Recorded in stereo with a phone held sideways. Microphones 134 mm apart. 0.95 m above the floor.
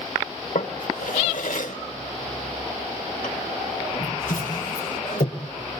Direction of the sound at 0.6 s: 75° left (ahead or behind).